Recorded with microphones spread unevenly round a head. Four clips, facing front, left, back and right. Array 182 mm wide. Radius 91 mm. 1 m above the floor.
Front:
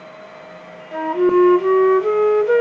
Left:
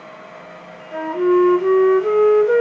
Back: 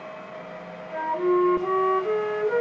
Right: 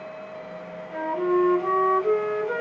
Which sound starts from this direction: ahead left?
A flute, at 0.9 s.